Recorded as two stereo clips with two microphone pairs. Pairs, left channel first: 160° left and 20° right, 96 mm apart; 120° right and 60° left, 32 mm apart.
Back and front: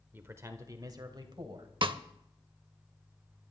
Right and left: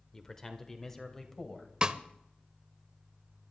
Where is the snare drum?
Straight ahead, 0.7 m.